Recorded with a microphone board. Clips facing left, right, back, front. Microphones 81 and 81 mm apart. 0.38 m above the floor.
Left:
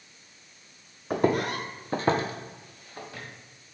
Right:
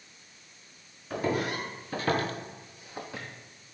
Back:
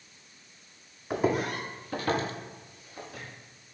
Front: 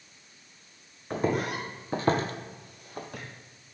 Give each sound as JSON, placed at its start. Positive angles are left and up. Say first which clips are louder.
{"t": 1.1, "sound": "footsteps", "louder": "left 5 dB, back 1 dB", "azimuth_deg": 100, "distance_m": 0.8}